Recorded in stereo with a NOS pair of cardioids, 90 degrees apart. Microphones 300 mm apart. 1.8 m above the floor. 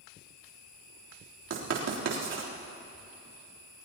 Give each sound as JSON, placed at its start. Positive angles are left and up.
{"t": 1.5, "sound": "writing", "azimuth_deg": -60, "distance_m": 3.5}